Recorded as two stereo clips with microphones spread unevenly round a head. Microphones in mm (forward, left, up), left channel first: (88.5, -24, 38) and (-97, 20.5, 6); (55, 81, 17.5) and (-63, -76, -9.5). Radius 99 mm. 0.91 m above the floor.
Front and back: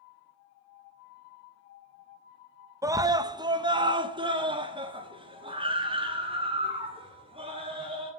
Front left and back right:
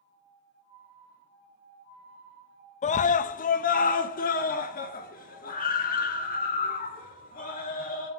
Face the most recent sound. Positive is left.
turn(degrees=105)